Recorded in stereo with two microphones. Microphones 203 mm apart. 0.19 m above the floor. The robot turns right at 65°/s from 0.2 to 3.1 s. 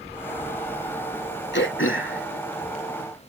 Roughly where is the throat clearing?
Left.